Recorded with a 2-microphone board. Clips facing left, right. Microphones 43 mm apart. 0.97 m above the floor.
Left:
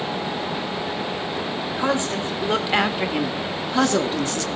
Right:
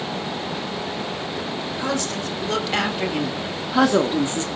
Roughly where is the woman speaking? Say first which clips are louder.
Left 4 dB; left.